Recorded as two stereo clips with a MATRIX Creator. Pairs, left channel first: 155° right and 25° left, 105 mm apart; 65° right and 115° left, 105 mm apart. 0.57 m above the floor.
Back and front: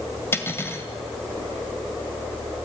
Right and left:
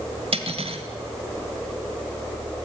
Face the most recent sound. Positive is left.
turn(degrees=135)